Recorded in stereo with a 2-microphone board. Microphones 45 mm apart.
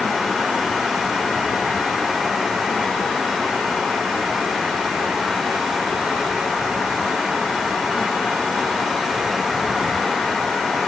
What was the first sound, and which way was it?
Only background noise.